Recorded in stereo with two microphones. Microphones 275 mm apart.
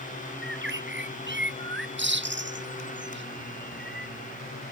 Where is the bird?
40° right (ahead or behind).